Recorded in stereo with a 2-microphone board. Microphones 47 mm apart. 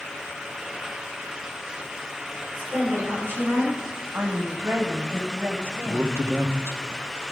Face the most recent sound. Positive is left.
turn(degrees=-65)  # may be behind; listen again after turning